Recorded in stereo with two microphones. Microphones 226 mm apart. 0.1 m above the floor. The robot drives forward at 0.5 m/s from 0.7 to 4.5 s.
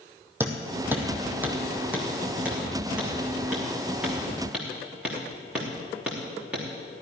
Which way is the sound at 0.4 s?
10° right (ahead or behind).